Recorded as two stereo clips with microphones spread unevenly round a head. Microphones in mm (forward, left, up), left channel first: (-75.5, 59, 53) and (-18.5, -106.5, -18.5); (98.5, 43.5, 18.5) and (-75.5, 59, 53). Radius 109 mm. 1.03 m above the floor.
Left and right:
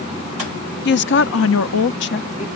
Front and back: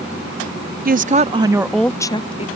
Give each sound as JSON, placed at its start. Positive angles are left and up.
{"t": 0.8, "sound": "a woman speaking", "azimuth_deg": 135}